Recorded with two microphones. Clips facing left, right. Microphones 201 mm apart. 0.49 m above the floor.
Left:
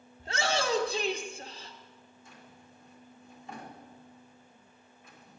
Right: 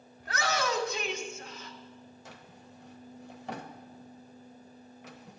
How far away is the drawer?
About 0.9 m.